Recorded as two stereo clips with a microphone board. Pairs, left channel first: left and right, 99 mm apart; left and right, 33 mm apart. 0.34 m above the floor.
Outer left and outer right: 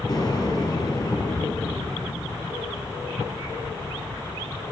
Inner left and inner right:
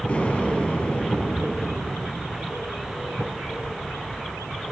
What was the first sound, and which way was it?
An explosion, 45° left (ahead or behind).